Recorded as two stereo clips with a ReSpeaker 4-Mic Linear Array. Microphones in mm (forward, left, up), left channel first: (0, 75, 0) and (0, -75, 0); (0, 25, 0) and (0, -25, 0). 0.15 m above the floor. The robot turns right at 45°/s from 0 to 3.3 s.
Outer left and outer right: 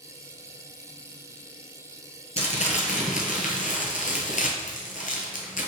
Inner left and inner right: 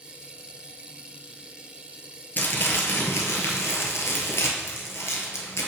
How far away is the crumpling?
About 1.1 m.